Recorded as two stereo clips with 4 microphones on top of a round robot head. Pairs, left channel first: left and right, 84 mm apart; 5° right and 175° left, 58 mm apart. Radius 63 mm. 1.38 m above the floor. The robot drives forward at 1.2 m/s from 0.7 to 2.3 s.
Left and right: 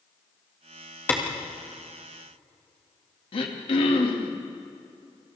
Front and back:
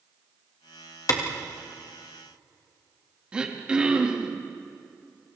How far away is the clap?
About 2 m.